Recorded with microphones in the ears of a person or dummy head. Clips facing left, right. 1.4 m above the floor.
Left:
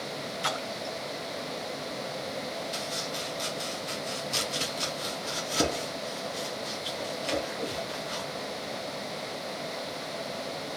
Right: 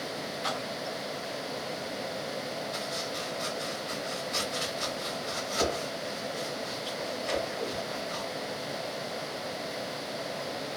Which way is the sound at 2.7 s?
40° left (ahead or behind).